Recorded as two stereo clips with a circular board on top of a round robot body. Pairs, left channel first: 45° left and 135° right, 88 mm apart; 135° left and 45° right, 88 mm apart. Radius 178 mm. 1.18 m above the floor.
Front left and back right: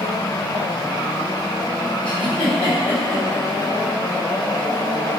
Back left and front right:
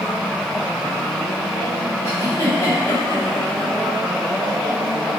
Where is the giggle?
70° left, 4.5 m.